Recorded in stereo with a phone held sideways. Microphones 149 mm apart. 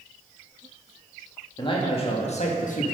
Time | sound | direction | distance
1.6 | a man speaking | 30° left (ahead or behind) | 1.6 m